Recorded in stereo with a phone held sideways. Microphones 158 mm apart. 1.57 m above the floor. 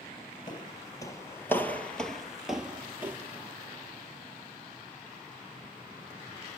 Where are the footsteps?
30° left (ahead or behind), 1.7 m; by 3.2 s 15° right (ahead or behind), 1.8 m.